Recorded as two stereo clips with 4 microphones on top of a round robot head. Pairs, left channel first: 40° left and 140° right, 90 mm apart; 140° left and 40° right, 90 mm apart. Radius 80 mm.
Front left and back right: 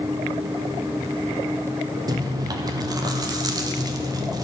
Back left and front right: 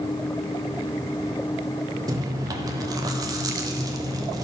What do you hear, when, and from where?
2.1 s chewing: 90° right, 1.1 m